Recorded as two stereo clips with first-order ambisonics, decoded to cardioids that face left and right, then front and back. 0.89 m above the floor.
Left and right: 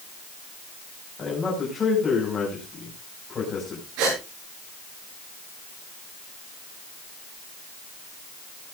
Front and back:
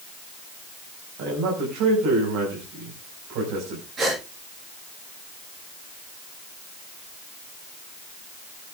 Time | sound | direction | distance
1.2 | a man speaking | 165° left | 5.5 m
4.0 | a gasp | 115° right | 10 m